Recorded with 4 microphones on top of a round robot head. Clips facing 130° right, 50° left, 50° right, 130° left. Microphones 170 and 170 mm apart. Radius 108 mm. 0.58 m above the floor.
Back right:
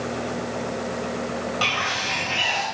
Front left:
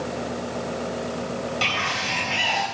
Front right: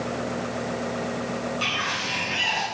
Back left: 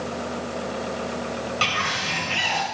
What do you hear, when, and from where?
1.6 s a bird: 120° left, 3 m